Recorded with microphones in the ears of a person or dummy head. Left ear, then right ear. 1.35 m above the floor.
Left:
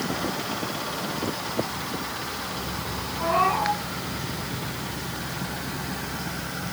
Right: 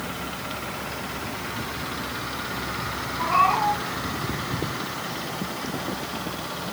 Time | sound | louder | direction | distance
3.2 | a cat meowing | right 2 dB | 40° right (ahead or behind) | 6.5 m